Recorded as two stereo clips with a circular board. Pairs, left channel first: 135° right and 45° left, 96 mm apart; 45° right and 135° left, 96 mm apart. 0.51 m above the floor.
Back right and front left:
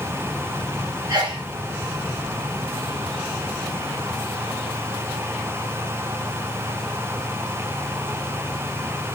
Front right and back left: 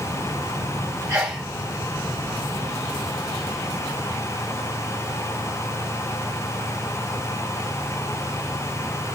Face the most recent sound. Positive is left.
turn(degrees=85)